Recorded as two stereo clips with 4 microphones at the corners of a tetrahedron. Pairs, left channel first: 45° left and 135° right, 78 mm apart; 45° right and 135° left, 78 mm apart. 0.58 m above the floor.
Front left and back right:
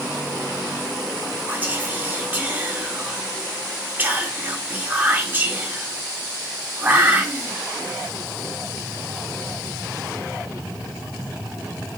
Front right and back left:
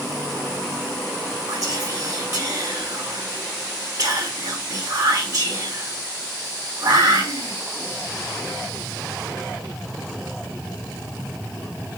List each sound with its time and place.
1.5 s whispering: 160° left, 1.2 m